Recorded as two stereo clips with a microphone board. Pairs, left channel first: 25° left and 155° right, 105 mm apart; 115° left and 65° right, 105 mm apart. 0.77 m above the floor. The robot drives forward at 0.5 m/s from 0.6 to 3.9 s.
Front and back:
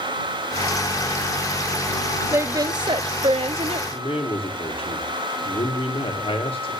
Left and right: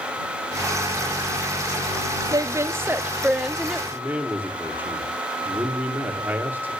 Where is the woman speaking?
100° right, 0.5 m; by 3.8 s 155° right, 0.9 m.